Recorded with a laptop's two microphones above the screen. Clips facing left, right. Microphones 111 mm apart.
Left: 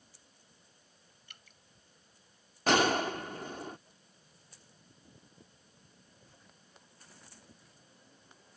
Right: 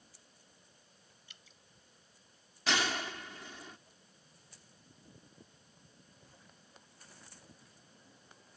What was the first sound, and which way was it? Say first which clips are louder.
Dripping: left 5 dB; 60° left (ahead or behind).